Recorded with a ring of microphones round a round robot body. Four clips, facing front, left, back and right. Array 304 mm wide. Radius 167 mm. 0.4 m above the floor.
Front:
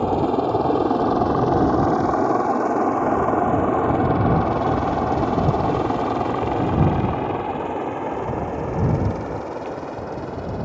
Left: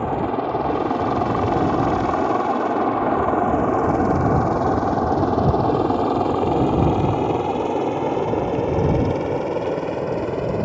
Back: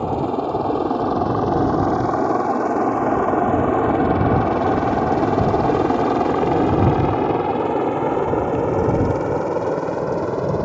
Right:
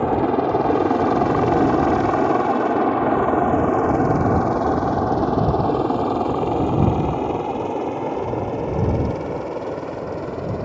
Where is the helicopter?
70° right; by 10.7 s 155° left.